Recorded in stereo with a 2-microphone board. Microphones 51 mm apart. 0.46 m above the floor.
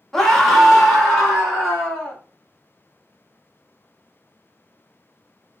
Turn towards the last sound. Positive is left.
turn(degrees=-5)  # may be behind; listen again after turning